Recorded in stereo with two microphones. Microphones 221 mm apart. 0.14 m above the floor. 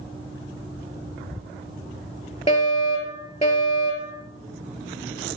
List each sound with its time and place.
2.5 s a fire alarm: 30° left (ahead or behind), 4 m